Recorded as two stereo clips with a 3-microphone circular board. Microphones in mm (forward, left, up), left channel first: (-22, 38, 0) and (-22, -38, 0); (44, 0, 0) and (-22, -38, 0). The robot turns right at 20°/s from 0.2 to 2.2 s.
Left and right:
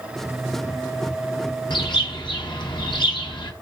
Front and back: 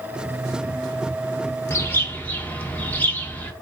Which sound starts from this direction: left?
A bird, at 1.7 s.